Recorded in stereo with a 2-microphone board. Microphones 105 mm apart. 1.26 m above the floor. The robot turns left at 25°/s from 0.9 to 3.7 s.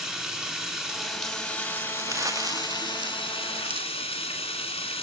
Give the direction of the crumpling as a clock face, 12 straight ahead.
1 o'clock.